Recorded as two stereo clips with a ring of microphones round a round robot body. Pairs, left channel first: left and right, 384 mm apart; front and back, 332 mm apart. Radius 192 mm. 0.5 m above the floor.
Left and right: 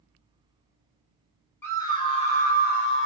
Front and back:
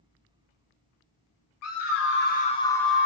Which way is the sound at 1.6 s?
5° left.